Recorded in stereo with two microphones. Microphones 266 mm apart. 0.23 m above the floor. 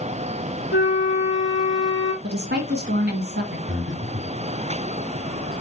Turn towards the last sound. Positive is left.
turn(degrees=-45)  # may be behind; listen again after turning